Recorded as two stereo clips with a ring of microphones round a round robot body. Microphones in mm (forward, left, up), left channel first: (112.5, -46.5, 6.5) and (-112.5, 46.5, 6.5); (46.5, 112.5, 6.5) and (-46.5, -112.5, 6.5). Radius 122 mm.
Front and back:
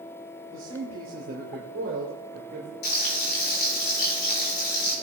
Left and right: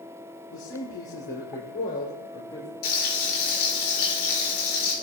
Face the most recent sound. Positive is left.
turn(degrees=30)